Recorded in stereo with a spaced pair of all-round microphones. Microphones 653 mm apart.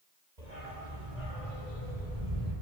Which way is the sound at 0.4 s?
80° right.